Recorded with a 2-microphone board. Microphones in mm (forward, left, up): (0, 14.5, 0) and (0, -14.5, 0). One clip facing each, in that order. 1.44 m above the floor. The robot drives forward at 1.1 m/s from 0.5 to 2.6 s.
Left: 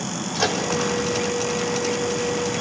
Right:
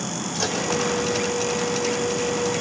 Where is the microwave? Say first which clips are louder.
Left 4 dB; 30° left (ahead or behind), 4.5 m.